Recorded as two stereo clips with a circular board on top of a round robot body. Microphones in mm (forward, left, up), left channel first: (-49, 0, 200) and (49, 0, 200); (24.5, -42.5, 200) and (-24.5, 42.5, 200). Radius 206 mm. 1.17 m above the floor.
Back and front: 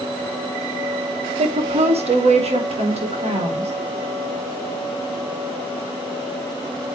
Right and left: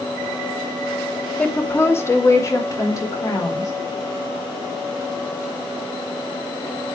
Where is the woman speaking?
20° left, 1.1 m; by 3.7 s 5° right, 4.5 m.